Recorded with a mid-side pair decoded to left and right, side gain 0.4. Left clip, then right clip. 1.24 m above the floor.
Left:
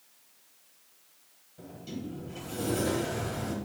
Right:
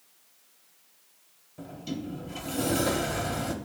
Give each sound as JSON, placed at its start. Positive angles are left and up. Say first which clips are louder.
{"t": 1.6, "sound": "a sliding door", "louder": "right 4 dB", "azimuth_deg": -70, "distance_m": 1.1}